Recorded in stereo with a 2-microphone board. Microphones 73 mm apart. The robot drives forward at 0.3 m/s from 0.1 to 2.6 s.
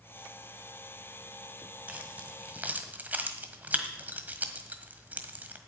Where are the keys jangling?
20° right (ahead or behind), 1.6 m.